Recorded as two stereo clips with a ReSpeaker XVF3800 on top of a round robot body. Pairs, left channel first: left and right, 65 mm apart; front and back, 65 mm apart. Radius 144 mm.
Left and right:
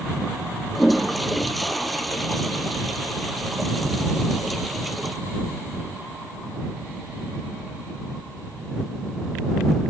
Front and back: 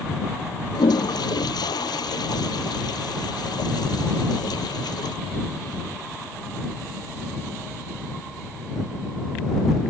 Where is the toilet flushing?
Straight ahead.